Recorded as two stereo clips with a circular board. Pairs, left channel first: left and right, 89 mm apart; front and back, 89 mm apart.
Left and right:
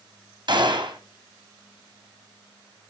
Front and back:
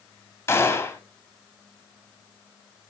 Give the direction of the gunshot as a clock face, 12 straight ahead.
2 o'clock.